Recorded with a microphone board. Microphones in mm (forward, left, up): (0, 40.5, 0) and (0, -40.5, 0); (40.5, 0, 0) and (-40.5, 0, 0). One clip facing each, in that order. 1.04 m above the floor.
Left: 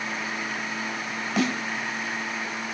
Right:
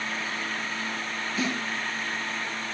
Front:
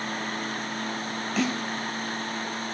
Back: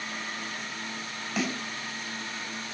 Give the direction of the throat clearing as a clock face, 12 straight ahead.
I don't hear throat clearing.